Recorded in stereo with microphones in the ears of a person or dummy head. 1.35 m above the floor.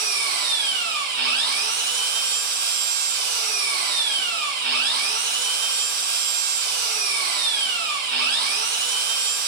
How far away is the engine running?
About 0.9 m.